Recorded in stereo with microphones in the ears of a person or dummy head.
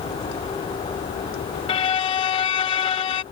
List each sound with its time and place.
1.7 s a violin: 25° left (ahead or behind)